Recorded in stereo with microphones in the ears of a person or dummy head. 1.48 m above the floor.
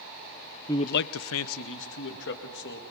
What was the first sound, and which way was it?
A man speaking, 10° left (ahead or behind).